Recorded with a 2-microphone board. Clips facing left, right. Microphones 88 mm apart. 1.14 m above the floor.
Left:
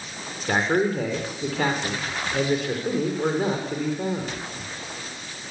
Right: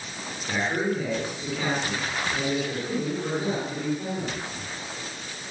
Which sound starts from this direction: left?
A man speaking, at 0.5 s.